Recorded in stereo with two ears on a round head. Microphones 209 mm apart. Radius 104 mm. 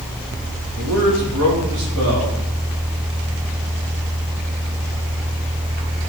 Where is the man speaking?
70° right (ahead or behind), 2.5 m.